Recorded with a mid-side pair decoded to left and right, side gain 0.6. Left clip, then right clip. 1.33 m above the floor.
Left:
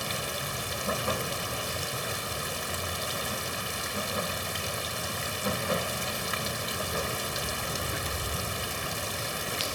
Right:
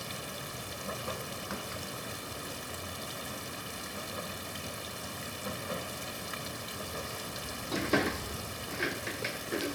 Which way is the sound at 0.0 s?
50° left.